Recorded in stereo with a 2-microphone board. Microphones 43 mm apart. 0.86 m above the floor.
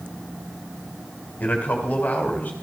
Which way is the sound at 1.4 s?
45° left (ahead or behind).